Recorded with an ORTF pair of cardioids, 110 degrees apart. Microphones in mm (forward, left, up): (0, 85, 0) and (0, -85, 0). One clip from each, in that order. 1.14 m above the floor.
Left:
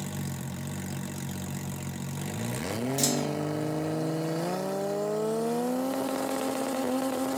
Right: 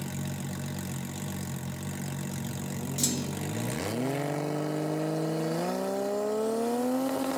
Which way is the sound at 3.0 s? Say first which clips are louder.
Left 2 dB; 10° left.